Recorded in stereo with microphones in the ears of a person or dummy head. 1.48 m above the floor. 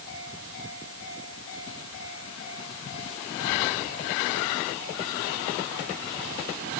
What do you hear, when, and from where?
Only background noise.